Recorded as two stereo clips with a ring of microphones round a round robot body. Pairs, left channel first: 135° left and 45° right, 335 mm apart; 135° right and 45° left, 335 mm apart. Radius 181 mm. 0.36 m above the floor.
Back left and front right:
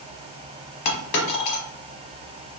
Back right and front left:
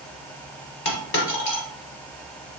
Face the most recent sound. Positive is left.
turn(degrees=170)